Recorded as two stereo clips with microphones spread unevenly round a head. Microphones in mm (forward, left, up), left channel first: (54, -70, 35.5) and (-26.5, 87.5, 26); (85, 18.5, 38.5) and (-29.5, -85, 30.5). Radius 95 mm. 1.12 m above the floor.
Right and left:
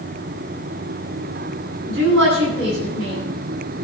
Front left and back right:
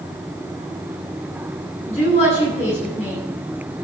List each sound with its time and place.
1.9 s a woman speaking: 100° left, 9 m